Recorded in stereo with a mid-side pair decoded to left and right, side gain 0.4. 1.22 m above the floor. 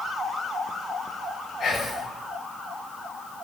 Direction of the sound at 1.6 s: 60° left.